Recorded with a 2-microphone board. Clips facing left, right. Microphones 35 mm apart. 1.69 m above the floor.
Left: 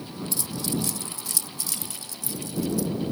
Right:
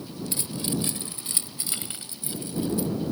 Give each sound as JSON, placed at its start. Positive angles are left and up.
{"t": 0.3, "sound": "keys jangling", "side_deg": -35}